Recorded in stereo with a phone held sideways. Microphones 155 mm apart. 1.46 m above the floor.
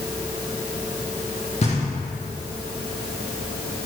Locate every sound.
1.6 s knocking: 40° left (ahead or behind), 1.7 m